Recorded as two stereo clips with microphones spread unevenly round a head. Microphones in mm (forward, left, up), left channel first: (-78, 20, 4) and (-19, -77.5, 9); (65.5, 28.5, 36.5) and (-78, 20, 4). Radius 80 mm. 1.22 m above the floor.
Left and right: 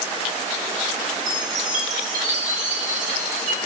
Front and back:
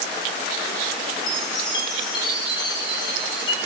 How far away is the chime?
About 3.5 m.